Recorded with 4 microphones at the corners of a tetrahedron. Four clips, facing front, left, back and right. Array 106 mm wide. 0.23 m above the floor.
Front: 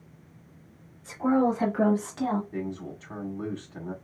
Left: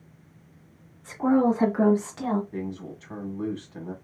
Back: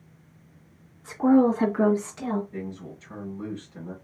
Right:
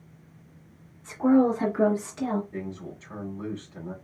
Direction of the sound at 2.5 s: 40° left.